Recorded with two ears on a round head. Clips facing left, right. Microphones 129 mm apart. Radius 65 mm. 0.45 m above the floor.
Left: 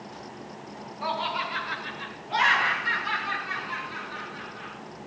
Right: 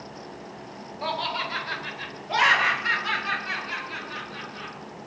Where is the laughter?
30° right (ahead or behind), 1.6 m; by 4.8 s 75° right (ahead or behind), 4.5 m.